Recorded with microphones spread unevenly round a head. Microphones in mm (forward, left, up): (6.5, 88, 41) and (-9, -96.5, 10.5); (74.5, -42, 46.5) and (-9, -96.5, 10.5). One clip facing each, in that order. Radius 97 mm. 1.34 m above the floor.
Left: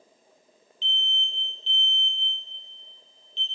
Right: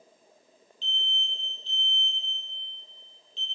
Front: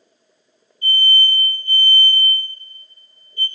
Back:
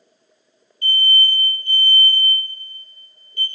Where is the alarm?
140° right, 2.5 m.